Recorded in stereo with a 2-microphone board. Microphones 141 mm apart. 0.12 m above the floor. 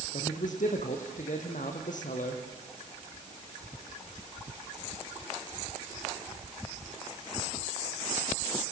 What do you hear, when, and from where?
0.1 s a man speaking: 75° left (ahead or behind), 4.5 m